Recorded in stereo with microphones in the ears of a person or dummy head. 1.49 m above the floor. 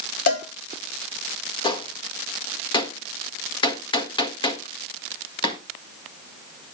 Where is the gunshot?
25° left (ahead or behind), 1.5 m.